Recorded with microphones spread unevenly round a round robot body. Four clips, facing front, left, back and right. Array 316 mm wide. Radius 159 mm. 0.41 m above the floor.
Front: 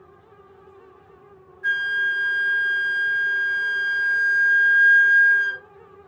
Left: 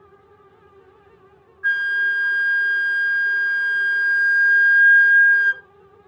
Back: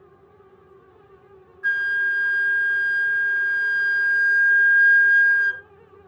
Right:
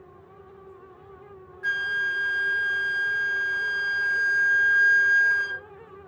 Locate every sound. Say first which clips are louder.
1.6 s a flute: left 6 dB, back 1 dB; 135° right, 1.3 m